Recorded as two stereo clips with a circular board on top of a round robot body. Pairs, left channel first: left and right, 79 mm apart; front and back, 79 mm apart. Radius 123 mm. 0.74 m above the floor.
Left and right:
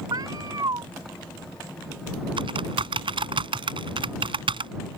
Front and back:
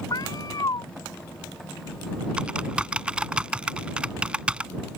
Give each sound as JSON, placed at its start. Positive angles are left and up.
{"t": 0.1, "sound": "a cat meowing", "azimuth_deg": -45}
{"t": 2.4, "sound": "typing on a keyboard", "azimuth_deg": -105}